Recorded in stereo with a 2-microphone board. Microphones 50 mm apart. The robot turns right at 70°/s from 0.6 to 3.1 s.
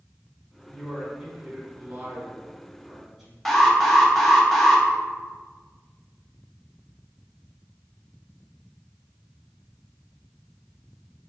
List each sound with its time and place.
0.7 s a man speaking: 175° left, 0.9 m; by 3.4 s 20° right, 0.9 m
3.5 s an alarm: 5° left (ahead or behind), 0.6 m